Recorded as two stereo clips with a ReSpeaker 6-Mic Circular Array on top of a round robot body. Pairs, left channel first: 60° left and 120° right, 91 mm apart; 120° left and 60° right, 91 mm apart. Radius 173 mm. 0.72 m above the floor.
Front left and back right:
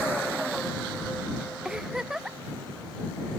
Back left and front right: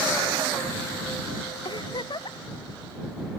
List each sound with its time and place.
1.6 s a giggle: 155° left